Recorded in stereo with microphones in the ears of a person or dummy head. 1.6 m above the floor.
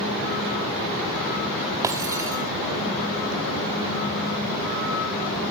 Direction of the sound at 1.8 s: 10° right (ahead or behind).